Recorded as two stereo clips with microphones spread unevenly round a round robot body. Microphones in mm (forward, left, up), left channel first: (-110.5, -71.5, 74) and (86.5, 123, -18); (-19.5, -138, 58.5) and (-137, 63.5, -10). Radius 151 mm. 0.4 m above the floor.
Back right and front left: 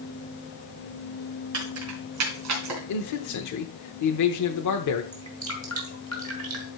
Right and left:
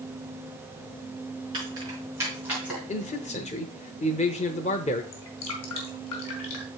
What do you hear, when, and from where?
1.5 s keys jangling: 50° left, 4 m; by 2.8 s 35° left, 3 m
2.9 s a man speaking: 130° right, 1.0 m
5.1 s dripping: 10° right, 2.5 m